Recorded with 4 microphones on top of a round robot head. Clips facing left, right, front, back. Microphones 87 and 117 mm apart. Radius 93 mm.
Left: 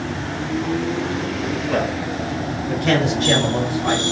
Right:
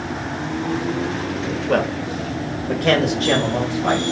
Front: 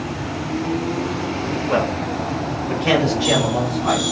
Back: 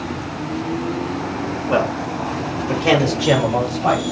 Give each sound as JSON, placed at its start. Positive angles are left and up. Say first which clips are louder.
{"t": 1.7, "sound": "a man speaking", "louder": "right 4 dB, back 2 dB", "azimuth_deg": -90, "distance_m": 1.3}